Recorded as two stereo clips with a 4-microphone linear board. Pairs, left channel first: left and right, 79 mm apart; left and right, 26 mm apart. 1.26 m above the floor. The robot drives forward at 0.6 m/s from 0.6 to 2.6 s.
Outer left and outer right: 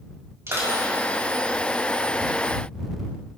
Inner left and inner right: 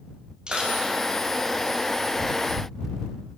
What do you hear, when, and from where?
0.5 s crushing: 35° right (ahead or behind), 5 m; by 0.8 s 40° right (ahead or behind), 5 m